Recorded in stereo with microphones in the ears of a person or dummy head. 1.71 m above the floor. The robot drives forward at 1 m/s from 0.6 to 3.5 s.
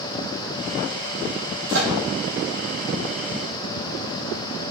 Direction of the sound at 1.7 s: 80° right.